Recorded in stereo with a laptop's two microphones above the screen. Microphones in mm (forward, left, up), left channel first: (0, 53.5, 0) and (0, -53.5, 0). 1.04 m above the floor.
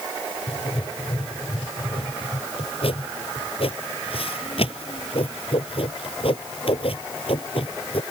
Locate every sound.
0.5 s writing: 60° left (ahead or behind)